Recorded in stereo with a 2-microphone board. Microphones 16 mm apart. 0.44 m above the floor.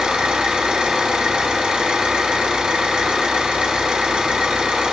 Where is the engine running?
70° right (ahead or behind), 2.5 m.